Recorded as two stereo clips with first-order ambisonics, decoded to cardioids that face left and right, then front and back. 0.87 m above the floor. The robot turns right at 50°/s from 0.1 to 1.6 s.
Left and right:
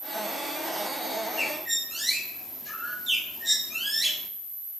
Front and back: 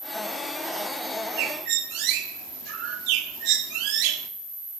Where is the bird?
175° left, 1.4 m; by 4.3 s 175° right, 1.4 m.